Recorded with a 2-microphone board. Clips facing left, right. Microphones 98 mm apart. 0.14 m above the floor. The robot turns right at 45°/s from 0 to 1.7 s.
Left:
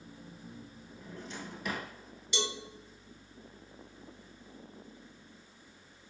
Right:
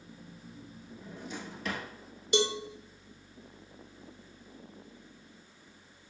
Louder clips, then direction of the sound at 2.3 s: Right 8 dB; 50° right (ahead or behind).